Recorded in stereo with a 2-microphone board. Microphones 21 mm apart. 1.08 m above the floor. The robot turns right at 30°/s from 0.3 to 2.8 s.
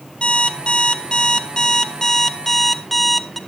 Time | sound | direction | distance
0.2 | an alarm clock | 95° left | 0.7 m